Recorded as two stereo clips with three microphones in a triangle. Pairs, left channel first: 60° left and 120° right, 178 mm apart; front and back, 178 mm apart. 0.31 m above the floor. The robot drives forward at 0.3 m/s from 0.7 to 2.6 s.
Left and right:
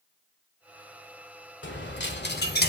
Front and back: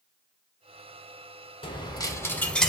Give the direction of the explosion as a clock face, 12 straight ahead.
I don't hear an explosion.